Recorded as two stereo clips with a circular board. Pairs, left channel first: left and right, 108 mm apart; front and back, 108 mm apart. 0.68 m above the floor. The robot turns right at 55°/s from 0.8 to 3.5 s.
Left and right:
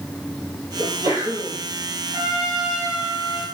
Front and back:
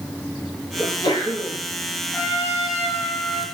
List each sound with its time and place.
0.8 s a sneeze: 60° right, 1.7 m; by 1.6 s 15° right, 1.7 m
2.1 s a trumpet: 70° right, 3.5 m; by 3.4 s 5° left, 3.5 m